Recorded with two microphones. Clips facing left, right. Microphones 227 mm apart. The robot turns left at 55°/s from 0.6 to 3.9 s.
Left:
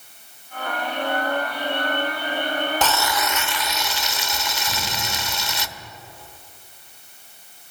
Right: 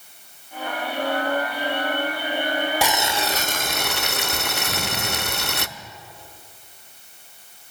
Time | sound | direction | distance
2.8 | boiling | 10° right | 0.7 m
4.7 | an explosion | 30° right (ahead or behind) | 1.7 m